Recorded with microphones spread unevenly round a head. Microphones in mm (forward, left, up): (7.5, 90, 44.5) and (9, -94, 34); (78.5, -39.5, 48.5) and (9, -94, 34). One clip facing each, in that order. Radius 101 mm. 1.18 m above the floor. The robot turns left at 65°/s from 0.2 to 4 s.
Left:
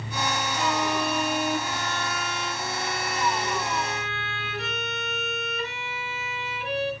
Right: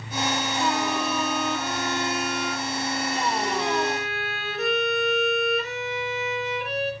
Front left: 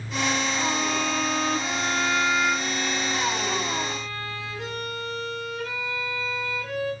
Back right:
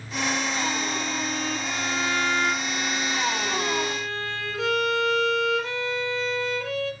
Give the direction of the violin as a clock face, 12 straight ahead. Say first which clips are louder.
Left 1 dB, front left 2 dB; 9 o'clock.